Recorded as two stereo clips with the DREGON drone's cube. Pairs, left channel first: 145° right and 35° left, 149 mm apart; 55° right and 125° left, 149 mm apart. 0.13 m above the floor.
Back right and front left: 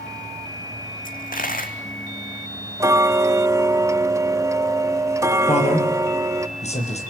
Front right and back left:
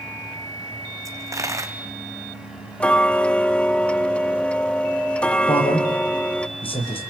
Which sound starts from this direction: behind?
A dropped coin, at 1.1 s.